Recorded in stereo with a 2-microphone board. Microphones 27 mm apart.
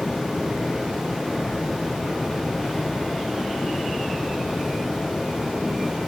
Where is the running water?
5° right (ahead or behind), 4.5 m.